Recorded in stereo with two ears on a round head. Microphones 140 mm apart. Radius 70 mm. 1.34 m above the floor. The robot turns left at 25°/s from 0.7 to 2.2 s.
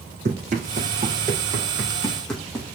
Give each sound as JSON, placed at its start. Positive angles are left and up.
{"t": 0.2, "sound": "running footsteps", "side_deg": -50, "distance_m": 4.5}